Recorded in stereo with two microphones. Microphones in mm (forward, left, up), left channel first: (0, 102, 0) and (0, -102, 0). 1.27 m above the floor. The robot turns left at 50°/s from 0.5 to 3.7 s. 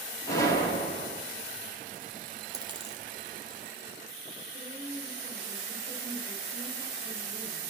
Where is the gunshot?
165° left, 3 m; by 1.2 s 130° left, 3 m.